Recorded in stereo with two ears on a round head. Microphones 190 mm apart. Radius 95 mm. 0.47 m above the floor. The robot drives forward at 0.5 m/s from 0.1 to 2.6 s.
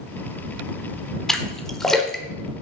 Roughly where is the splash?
Centre.